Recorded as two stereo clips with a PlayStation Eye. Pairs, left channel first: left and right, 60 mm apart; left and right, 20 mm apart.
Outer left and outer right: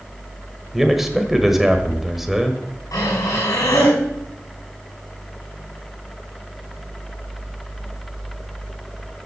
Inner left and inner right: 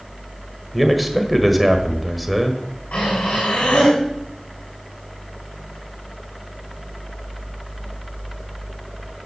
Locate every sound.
0.7 s a man speaking: 5° right (ahead or behind), 1.6 m
2.9 s breathing: 85° left, 8 m